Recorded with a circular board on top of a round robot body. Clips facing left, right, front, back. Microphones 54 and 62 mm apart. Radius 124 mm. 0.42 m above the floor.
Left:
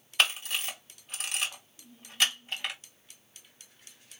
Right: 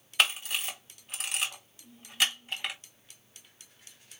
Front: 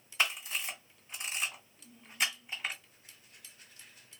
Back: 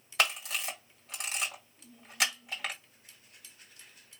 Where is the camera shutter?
Straight behind, 1.8 m.